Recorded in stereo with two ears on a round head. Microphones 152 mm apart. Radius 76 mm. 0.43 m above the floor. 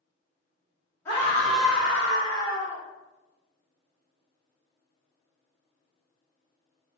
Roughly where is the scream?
Centre.